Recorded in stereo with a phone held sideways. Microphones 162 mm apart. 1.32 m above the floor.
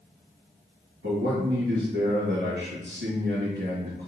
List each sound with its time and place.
1.0 s a man speaking: 80° right, 1.5 m